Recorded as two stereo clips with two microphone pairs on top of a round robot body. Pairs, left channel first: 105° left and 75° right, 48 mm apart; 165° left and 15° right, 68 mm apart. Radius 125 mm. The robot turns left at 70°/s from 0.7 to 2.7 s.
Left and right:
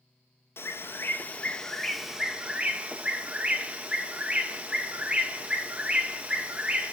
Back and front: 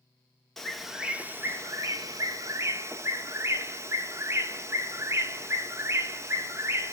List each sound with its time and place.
0.6 s a bird: 85° left, 1.7 m; by 6.9 s 55° right, 1.7 m